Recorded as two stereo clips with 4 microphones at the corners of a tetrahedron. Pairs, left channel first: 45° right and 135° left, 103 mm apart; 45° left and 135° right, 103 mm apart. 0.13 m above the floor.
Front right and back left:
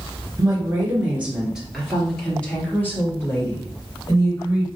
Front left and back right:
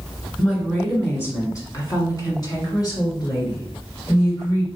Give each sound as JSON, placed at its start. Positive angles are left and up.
{"t": 0.4, "sound": "a woman speaking", "azimuth_deg": 110, "distance_m": 1.7}